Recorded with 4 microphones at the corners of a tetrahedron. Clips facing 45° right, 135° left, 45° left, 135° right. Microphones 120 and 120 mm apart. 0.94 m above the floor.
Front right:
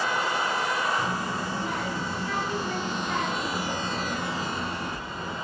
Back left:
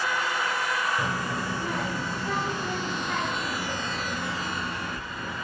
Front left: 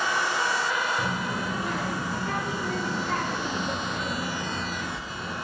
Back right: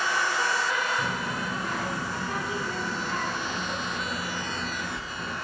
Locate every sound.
1.0 s a child speaking: 100° left, 1.7 m; by 5.3 s 25° right, 1.6 m